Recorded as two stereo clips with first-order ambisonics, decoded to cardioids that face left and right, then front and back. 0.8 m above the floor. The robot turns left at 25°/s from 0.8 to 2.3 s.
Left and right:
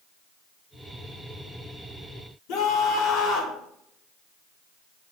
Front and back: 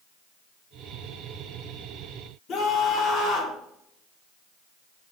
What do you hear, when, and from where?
2.5 s a scream: 60° left, 2.5 m